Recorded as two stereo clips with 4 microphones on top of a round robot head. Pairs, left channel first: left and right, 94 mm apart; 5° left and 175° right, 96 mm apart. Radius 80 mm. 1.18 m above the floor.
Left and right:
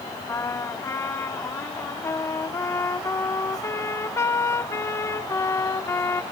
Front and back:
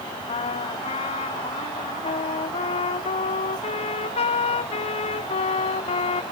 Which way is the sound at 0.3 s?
25° left.